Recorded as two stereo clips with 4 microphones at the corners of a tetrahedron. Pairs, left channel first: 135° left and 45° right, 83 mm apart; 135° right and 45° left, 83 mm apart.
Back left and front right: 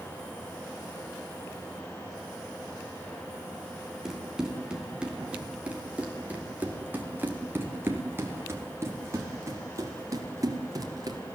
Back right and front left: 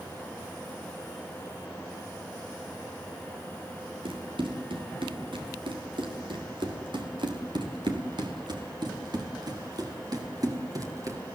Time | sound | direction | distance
4.0 | running footsteps | 40° left | 6.5 m